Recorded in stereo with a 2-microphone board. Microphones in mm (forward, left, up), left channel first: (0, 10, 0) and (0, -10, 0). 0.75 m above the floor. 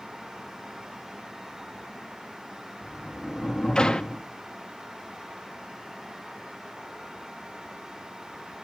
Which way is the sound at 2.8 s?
40° left (ahead or behind).